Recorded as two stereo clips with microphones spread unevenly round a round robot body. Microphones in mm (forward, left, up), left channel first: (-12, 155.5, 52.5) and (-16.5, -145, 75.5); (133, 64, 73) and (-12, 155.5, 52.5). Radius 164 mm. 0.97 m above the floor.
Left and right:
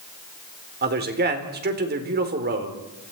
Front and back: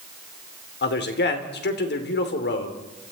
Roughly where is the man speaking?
Ahead right.